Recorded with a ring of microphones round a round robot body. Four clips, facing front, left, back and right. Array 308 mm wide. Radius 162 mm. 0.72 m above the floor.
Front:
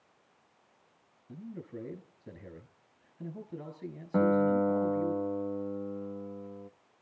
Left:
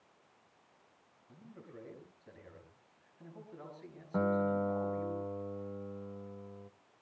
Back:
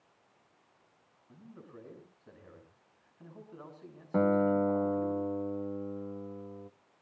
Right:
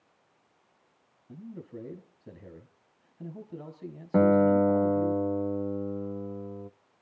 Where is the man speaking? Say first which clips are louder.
Right 10 dB, front 8 dB; 55° right, 5.5 m.